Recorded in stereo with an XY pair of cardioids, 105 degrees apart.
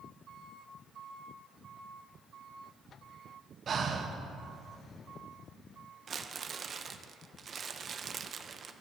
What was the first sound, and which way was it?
Breathing, 45° right.